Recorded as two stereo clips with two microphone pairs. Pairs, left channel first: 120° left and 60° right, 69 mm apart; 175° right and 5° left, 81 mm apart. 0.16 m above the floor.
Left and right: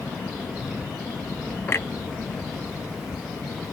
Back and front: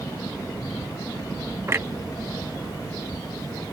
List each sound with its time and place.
1.7 s a clunk: 60° left